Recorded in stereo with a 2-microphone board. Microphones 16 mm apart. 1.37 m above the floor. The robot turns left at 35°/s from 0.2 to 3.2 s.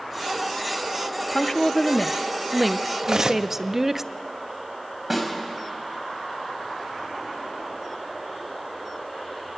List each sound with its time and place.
1.3 s a woman speaking: 45° left, 0.6 m; by 4.0 s 20° right, 0.6 m
3.0 s cutlery clinking: 35° right (ahead or behind), 0.9 m; by 3.5 s 40° right (ahead or behind), 0.9 m
5.1 s a snare drum: 10° right (ahead or behind), 5 m